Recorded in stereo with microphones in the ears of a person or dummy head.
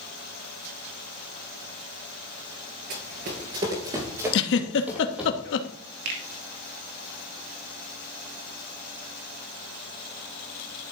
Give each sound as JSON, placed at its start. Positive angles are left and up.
{"t": 2.9, "sound": "running footsteps", "side_deg": -35, "distance_m": 2.0}
{"t": 4.3, "sound": "a giggle", "side_deg": 70, "distance_m": 1.1}
{"t": 6.0, "sound": "a finger snap", "side_deg": -60, "distance_m": 2.0}